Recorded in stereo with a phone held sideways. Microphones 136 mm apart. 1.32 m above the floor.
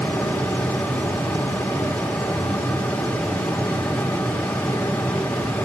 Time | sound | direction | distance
0.0 | a fan | 10° left (ahead or behind) | 1.9 m